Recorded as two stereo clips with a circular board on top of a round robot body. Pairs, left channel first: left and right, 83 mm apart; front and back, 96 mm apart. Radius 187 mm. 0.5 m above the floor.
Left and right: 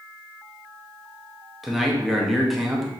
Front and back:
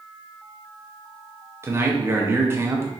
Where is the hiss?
I don't hear a hiss.